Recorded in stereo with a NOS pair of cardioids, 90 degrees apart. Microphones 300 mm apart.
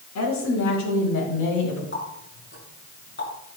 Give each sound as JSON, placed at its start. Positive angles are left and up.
{"t": 0.1, "sound": "a woman speaking", "azimuth_deg": 65, "distance_m": 5.0}
{"t": 1.9, "sound": "a running tap", "azimuth_deg": 40, "distance_m": 6.5}